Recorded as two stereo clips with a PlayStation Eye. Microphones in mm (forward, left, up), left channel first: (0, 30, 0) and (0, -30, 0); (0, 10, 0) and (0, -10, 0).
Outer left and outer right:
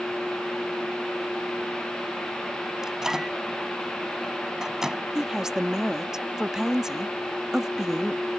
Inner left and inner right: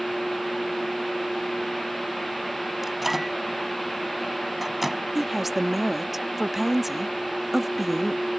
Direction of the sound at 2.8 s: 10° right (ahead or behind).